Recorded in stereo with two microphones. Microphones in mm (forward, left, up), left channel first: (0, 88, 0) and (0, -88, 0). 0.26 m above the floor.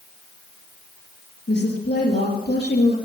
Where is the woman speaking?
75° left (ahead or behind), 5 m.